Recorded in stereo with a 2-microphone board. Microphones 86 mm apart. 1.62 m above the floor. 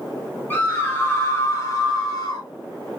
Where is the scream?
25° left (ahead or behind), 3.5 m; by 2.5 s 45° left (ahead or behind), 3 m.